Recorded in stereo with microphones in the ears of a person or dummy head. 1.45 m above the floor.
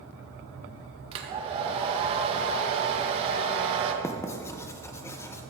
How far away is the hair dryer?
About 1.6 m.